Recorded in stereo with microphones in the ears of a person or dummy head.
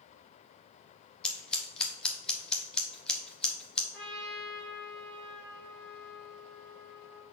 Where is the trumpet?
Centre (ahead or behind), 3 m.